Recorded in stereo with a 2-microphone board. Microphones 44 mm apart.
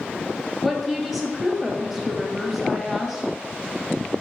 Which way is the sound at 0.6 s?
5° right (ahead or behind).